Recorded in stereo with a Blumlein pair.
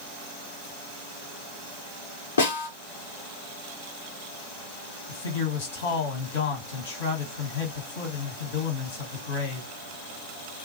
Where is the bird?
No bird in this recording.